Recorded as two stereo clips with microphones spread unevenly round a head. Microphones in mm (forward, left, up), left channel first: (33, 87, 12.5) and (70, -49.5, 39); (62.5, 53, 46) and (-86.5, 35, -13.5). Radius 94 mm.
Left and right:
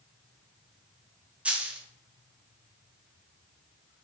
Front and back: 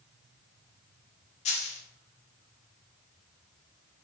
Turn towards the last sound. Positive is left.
turn(degrees=0)